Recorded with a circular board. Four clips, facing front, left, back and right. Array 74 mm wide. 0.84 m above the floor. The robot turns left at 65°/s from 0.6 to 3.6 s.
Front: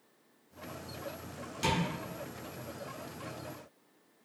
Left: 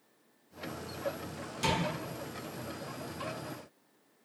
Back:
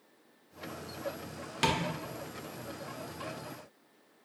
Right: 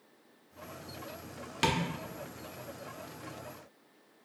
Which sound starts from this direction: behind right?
Tapping, at 1.6 s.